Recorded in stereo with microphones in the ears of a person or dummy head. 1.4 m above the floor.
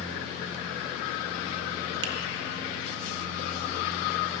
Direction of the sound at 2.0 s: 75° right (ahead or behind).